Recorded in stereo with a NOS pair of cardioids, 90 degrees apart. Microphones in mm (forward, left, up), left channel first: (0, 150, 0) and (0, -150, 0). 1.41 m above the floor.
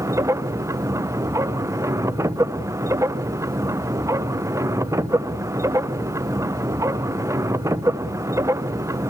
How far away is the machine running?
About 1.1 m.